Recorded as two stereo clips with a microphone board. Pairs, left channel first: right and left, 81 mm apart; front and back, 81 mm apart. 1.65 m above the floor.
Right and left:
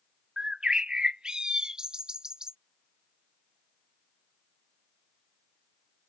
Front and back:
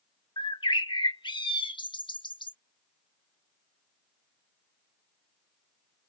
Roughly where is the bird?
Ahead.